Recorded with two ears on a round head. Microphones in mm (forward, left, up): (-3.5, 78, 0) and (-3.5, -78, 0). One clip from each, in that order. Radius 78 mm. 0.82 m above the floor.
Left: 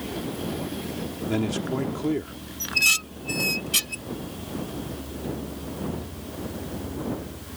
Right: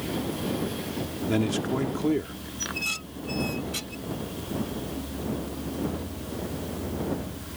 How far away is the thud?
No thud in this recording.